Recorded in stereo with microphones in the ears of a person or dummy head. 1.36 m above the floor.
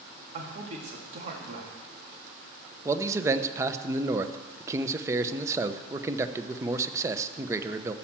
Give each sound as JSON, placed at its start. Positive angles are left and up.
{"t": 0.3, "sound": "a man speaking", "side_deg": -40, "distance_m": 2.5}
{"t": 2.9, "sound": "a man speaking", "side_deg": -20, "distance_m": 0.8}